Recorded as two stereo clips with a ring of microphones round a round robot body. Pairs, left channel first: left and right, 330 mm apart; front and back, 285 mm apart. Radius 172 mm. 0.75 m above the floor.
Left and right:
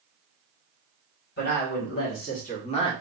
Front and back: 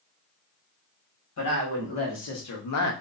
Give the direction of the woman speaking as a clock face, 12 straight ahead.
11 o'clock.